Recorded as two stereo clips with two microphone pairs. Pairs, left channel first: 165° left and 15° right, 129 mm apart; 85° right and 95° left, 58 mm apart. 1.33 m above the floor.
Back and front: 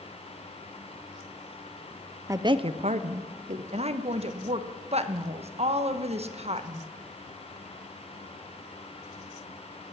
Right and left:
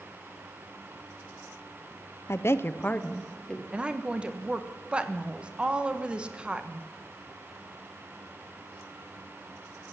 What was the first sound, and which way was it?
A woman speaking, 80° right.